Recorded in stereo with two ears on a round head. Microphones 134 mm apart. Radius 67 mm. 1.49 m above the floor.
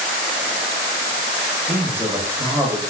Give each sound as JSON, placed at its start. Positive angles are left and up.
{"t": 1.7, "sound": "a man speaking", "side_deg": -15, "distance_m": 0.7}